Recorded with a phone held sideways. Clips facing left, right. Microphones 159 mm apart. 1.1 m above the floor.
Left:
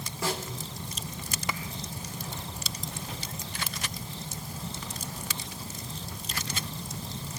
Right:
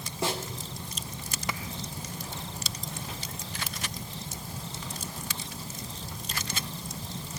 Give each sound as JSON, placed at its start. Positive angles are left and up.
{"t": 0.2, "sound": "a snare drum", "side_deg": -25, "distance_m": 2.5}